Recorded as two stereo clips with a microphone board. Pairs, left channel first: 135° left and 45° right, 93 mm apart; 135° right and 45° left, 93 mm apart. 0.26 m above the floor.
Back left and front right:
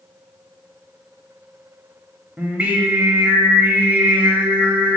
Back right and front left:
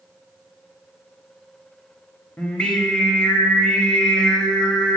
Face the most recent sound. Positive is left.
turn(degrees=-75)